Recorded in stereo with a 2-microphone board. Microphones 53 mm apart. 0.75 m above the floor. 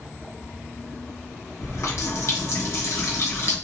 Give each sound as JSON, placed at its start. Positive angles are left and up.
{"t": 1.6, "sound": "a running tap", "side_deg": 65, "distance_m": 0.8}